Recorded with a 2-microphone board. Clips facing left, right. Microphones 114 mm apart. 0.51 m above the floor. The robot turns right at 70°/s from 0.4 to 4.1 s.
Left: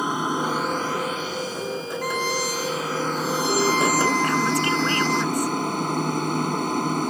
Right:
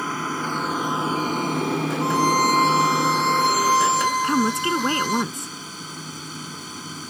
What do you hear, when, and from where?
0.0 s an aircraft: 165° left; by 7.1 s 60° left
2.0 s a violin: 160° right; by 5.2 s 10° right
4.2 s a woman speaking: 25° right (ahead or behind)